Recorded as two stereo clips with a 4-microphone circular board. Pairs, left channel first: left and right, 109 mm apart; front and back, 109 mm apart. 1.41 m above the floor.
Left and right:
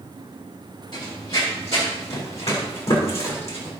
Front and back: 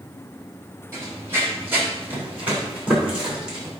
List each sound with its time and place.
0.9 s running footsteps: 115° left, 3.5 m; by 3.7 s 100° left, 5 m